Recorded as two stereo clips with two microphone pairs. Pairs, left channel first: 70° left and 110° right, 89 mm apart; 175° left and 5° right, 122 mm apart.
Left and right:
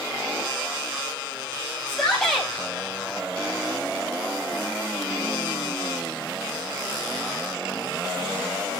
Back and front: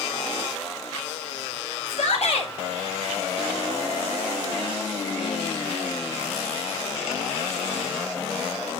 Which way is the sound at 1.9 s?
150° left.